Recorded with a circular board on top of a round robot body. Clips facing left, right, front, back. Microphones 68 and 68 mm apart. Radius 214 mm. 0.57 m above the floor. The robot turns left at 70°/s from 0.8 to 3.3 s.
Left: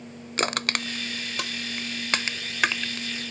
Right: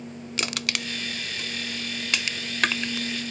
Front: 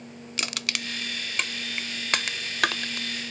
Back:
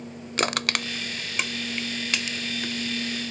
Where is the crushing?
135° left; by 3.1 s 25° right.